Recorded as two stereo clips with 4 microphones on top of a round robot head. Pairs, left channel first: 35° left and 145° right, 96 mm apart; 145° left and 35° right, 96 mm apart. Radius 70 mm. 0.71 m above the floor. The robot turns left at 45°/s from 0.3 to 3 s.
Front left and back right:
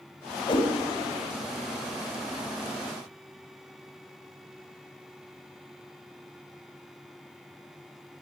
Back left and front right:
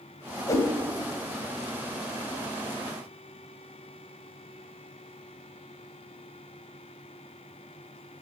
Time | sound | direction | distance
0.5 | a whoosh | 85° left | 1.8 m